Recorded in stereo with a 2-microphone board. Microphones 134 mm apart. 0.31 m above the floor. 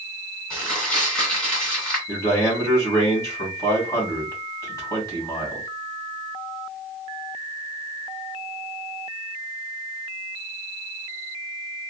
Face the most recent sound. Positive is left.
turn(degrees=25)  # may be behind; listen again after turning